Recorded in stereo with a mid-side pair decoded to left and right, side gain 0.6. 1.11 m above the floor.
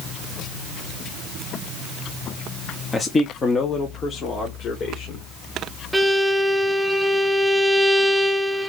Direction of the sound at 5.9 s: Straight ahead.